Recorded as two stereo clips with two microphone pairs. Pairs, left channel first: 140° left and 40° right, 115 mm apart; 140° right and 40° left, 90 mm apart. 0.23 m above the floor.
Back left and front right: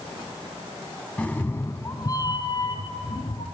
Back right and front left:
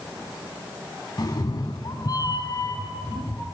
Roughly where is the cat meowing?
Behind right.